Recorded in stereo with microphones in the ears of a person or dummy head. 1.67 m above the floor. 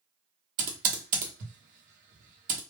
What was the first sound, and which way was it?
Typing on a keyboard, 50° right (ahead or behind).